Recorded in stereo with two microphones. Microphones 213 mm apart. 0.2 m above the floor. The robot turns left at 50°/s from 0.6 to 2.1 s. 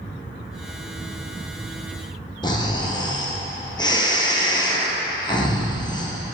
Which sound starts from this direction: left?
Snoring, at 2.4 s.